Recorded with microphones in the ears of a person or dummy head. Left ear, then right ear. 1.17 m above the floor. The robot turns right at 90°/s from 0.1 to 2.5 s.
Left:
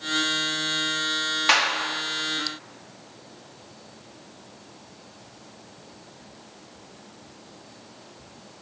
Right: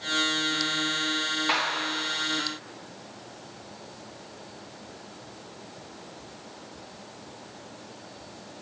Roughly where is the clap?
Ahead left.